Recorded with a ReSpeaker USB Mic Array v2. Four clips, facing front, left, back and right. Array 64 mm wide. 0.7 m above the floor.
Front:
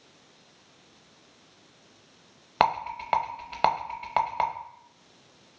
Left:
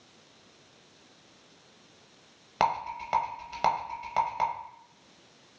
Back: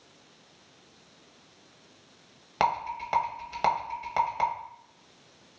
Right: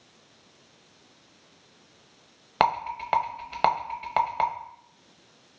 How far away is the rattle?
About 0.5 m.